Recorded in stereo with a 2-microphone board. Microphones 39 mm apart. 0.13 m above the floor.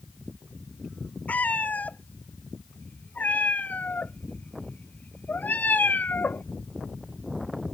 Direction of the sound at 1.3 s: 45° left (ahead or behind).